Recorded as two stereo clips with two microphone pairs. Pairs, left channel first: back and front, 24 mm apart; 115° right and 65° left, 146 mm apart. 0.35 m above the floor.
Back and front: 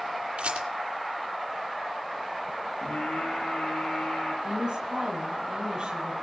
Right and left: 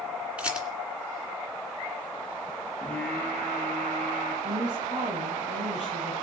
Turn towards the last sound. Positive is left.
turn(degrees=45)